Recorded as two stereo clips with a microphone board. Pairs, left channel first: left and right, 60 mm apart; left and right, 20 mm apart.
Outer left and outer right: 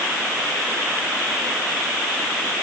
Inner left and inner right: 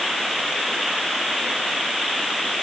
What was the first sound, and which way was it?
Only background noise.